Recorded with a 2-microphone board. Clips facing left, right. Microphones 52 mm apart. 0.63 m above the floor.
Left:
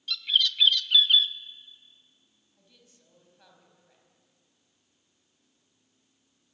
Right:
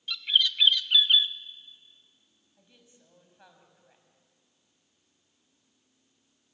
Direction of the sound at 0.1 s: 15° right (ahead or behind).